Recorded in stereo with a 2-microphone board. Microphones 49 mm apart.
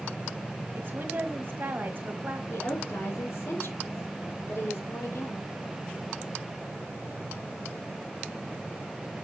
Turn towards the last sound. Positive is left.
turn(degrees=70)  # may be behind; listen again after turning